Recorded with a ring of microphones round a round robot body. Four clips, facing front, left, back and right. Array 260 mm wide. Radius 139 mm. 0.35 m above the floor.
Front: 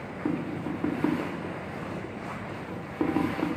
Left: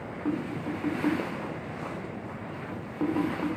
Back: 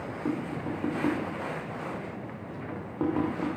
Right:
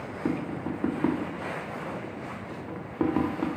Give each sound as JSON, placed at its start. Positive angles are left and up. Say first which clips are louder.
{"t": 0.2, "sound": "tapping", "louder": "right 1 dB, front 2 dB", "azimuth_deg": -65, "distance_m": 1.1}